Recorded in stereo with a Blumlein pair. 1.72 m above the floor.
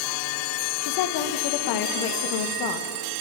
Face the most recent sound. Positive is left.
turn(degrees=45)